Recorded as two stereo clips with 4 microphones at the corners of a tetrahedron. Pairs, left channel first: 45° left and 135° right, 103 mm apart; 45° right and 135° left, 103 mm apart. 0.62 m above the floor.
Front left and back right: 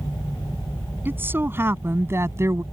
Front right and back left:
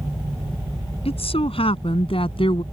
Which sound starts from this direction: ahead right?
A woman speaking, at 1.1 s.